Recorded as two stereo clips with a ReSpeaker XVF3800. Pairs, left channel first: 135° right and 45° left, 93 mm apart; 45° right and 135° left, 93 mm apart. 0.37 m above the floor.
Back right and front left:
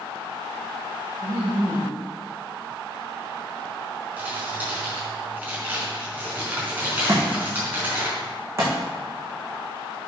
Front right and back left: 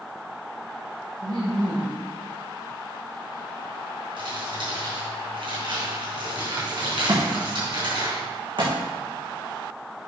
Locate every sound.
1.2 s laughter: 100° left, 3.5 m
4.2 s crumpling: 115° left, 4 m
7.1 s a thud: 105° left, 4 m